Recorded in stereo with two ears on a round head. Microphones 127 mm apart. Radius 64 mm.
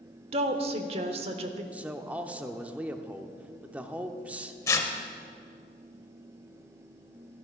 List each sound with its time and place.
0.3 s a woman speaking: 45° right (ahead or behind), 1.1 m
1.7 s a man speaking: 10° right (ahead or behind), 0.7 m
4.7 s tearing paper: 20° left (ahead or behind), 0.9 m